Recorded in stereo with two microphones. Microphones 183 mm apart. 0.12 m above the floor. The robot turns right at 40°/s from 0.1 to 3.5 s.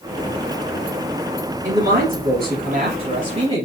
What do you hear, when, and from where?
1.6 s a man speaking: 125° right, 2.5 m; by 3.6 s 50° right, 2.5 m